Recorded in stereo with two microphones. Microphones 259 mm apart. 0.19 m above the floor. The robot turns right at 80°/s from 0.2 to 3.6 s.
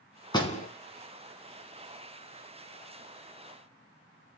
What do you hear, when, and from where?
0.3 s a door slam: 15° left (ahead or behind), 1.4 m; by 0.7 s 35° left (ahead or behind), 1.4 m